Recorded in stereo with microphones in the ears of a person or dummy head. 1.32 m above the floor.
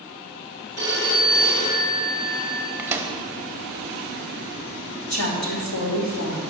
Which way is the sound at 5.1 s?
70° left (ahead or behind).